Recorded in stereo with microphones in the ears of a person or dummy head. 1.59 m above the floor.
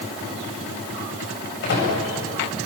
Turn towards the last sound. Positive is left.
turn(degrees=55)  # may be behind; listen again after turning